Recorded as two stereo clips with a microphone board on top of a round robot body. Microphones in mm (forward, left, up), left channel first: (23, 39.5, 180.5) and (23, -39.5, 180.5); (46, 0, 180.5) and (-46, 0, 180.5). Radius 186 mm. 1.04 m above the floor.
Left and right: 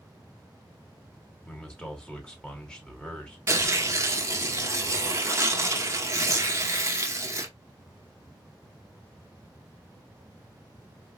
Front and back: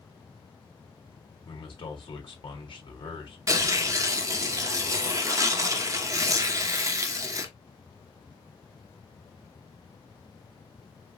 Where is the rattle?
No rattle in this recording.